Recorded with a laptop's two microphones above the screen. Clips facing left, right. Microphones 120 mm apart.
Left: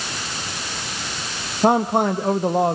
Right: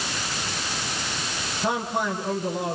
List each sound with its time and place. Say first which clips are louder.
1.6 s a man speaking: left 9 dB; 60° left (ahead or behind), 1.8 m